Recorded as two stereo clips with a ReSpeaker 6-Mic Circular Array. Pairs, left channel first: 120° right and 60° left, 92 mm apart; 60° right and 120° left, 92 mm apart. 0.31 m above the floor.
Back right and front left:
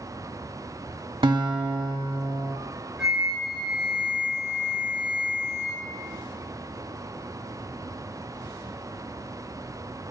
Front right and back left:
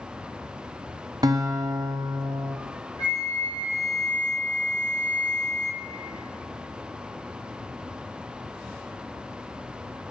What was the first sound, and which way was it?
A guitar, 85° left.